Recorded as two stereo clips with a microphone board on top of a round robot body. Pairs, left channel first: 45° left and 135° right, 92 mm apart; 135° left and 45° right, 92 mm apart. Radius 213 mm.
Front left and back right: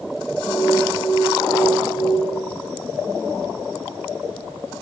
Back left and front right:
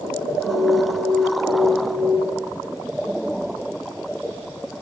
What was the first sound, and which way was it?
An alarm, 20° left.